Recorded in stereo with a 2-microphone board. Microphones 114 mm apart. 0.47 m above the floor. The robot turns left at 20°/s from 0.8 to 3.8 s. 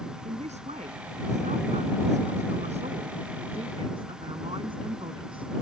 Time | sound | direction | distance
0.2 | a man speaking | 75° right | ?